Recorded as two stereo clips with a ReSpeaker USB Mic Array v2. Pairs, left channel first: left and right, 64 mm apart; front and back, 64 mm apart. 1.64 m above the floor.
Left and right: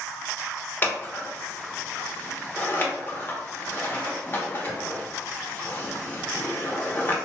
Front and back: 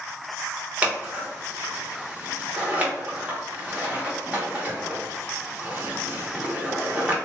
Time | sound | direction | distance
0.8 | scissors | 125° left | 0.7 m